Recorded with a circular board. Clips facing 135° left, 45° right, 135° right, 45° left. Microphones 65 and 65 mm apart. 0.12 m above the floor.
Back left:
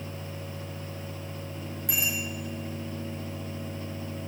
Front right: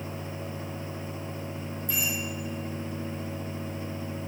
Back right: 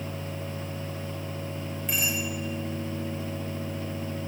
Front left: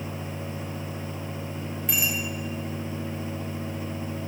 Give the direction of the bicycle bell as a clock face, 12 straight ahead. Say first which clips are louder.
Back left 1 dB, front left 1 dB; 8 o'clock.